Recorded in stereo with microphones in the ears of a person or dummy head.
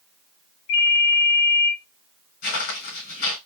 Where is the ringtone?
70° left (ahead or behind), 2.5 m.